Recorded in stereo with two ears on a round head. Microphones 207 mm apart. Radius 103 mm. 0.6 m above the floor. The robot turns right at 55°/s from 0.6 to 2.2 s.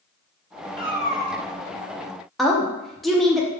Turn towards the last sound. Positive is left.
turn(degrees=0)  # may be behind; listen again after turning